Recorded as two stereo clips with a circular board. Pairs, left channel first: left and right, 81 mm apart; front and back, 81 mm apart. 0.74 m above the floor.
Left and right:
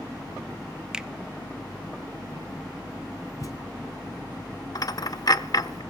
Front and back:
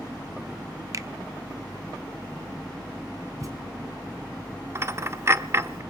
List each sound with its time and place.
0.9 s a finger snap: 165° right, 0.5 m
3.4 s a thud: 135° left, 2.5 m
4.8 s a dropped coin: 125° left, 0.6 m